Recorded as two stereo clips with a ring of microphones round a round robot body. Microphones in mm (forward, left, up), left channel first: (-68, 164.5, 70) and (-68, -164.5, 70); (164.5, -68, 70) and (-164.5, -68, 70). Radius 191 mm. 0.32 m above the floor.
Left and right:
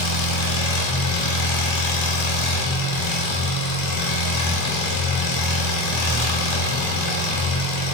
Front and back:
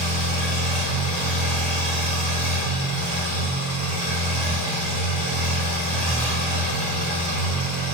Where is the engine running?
85° left, 0.8 m.